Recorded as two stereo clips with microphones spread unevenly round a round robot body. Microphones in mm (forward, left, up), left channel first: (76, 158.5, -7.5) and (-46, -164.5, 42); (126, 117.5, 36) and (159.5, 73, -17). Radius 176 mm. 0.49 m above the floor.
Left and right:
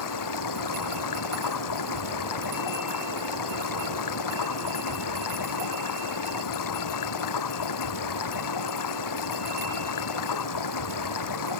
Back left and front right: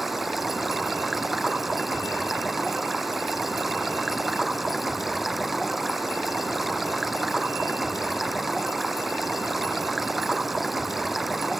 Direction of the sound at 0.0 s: 35° left.